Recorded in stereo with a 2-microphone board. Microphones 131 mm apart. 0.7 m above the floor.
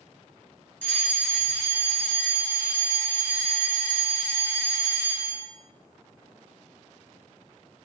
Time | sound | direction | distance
0.8 | a fire alarm | 10° left (ahead or behind) | 1.6 m